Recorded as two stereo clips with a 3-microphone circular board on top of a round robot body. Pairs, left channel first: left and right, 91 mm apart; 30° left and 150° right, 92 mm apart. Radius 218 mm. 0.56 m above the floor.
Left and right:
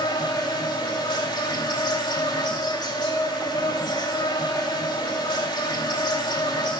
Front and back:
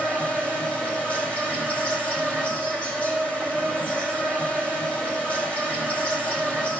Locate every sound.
0.0 s an insect: 105° left, 3 m